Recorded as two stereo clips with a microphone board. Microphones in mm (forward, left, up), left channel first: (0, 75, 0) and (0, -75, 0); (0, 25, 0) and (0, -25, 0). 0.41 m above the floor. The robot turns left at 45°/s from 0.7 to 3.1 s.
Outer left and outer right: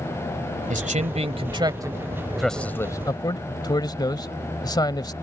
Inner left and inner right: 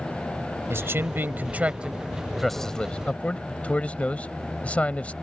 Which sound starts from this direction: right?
A man speaking, at 0.7 s.